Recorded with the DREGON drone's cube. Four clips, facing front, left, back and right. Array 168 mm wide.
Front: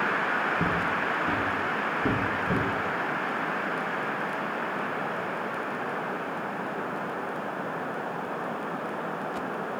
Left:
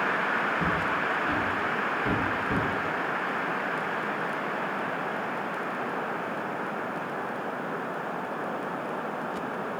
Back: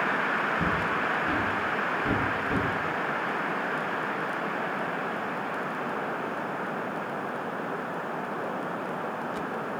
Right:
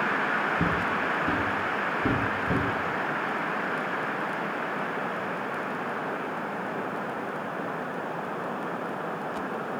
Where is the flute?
I don't hear a flute.